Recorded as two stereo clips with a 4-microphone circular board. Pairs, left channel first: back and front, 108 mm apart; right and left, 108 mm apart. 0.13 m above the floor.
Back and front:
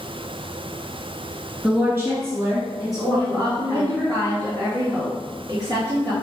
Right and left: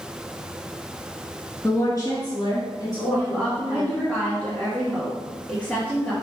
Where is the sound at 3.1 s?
20° right, 2 m.